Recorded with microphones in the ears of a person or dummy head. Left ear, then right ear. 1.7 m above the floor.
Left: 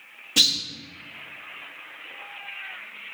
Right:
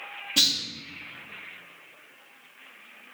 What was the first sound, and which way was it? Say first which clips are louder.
A clunk: left 3 dB; 35° left (ahead or behind).